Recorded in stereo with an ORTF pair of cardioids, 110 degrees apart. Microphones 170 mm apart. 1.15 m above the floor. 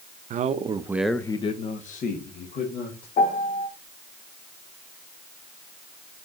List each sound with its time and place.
0.3 s a man speaking: 50° right, 1.1 m; by 3.1 s 70° left, 2.5 m
3.2 s a piano: 60° left, 1.4 m